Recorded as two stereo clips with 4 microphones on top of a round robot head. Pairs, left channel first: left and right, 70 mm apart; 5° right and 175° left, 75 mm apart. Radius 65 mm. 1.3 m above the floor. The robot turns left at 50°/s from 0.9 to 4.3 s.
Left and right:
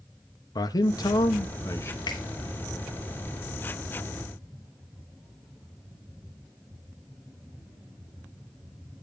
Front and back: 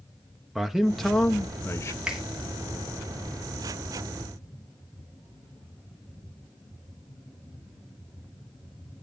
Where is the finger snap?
100° left, 2 m; by 2.2 s 90° left, 2 m.